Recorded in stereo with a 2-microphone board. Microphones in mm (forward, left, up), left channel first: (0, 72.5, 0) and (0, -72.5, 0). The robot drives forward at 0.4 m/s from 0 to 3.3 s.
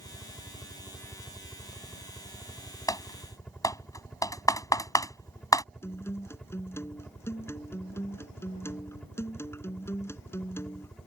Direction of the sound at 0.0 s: 5° left (ahead or behind).